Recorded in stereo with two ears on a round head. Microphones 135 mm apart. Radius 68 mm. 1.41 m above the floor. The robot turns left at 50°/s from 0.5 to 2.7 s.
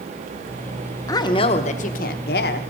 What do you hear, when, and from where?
1.1 s a woman speaking: 155° left, 0.8 m; by 2.6 s 80° left, 0.8 m